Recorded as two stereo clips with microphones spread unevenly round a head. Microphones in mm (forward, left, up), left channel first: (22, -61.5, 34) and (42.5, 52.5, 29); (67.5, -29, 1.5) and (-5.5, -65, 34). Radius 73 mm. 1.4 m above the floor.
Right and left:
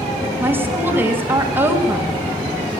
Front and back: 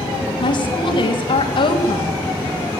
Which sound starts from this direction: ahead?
A woman speaking, at 0.4 s.